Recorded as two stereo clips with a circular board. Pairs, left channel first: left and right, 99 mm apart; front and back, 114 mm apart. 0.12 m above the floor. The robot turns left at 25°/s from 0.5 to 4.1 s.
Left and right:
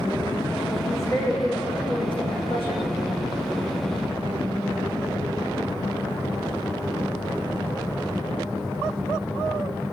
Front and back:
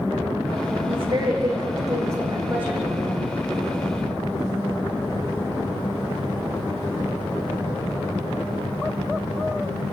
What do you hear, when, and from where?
0.9 s a woman speaking: 150° left, 7.5 m; by 2.9 s 100° left, 7.5 m